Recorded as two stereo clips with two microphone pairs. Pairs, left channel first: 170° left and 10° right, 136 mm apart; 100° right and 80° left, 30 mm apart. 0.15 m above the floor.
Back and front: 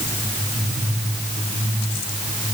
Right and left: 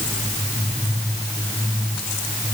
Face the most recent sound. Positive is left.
No sound to turn to.